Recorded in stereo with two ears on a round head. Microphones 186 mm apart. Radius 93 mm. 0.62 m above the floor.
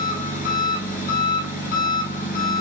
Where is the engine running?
40° left (ahead or behind), 2 m.